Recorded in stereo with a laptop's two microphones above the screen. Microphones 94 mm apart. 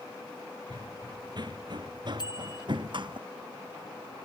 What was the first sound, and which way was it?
Running footsteps, 50° right (ahead or behind).